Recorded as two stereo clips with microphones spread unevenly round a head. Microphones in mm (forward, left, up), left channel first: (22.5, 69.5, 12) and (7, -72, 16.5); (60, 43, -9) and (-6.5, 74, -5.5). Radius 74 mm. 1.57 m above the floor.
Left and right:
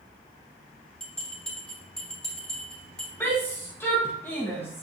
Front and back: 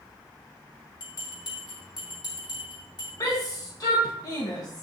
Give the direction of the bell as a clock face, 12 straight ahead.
12 o'clock.